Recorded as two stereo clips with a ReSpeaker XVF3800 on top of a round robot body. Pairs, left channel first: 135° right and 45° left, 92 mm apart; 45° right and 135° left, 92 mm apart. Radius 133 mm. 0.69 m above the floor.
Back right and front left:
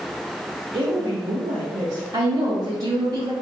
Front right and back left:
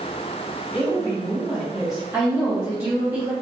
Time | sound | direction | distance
0.7 | a woman speaking | 55° left | 1.3 m
2.1 | a woman speaking | 65° left | 1.8 m